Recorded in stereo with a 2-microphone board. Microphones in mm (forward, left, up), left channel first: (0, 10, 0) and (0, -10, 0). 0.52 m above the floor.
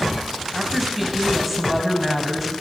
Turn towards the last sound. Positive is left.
turn(degrees=-10)  # may be behind; listen again after turning